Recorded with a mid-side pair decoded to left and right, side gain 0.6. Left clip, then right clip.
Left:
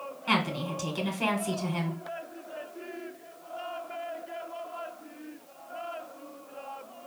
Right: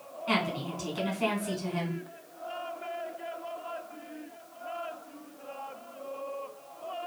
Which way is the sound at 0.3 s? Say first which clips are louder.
Left 2 dB; 35° left.